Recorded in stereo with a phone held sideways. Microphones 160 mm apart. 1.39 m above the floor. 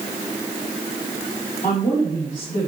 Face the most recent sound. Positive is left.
turn(degrees=55)  # may be behind; listen again after turning